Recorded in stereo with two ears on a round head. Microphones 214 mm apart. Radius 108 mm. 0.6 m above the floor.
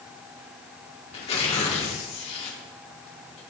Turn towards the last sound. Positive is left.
turn(degrees=25)  # may be behind; listen again after turning